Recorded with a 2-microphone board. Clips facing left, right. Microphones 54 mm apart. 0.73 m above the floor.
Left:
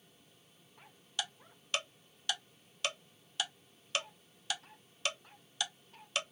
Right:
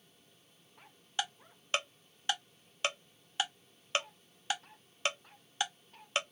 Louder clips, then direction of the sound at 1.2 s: Right 4 dB; 30° right (ahead or behind).